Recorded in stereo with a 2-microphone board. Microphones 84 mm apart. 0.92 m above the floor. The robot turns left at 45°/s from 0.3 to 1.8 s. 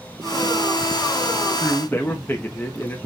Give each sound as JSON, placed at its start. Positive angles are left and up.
{"t": 1.6, "sound": "a man speaking", "side_deg": 30, "distance_m": 1.3}